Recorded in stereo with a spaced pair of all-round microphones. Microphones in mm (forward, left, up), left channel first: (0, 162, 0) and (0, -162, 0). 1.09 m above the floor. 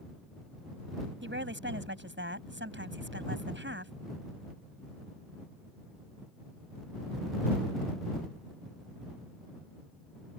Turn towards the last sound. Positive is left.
turn(degrees=-35)  # may be behind; listen again after turning